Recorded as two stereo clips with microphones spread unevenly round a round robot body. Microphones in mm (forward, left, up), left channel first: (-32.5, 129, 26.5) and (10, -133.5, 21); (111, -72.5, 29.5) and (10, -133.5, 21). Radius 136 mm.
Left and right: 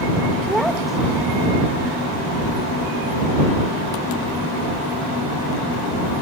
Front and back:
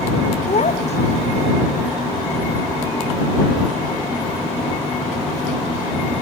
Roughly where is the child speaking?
Ahead.